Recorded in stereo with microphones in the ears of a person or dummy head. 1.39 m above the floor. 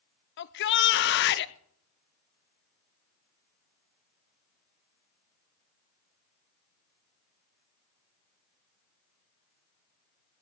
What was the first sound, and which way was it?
A shout, 60° left (ahead or behind).